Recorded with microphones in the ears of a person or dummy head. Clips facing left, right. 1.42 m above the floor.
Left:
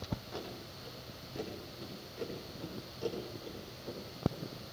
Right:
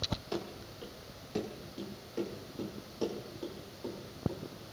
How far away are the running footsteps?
About 6.5 m.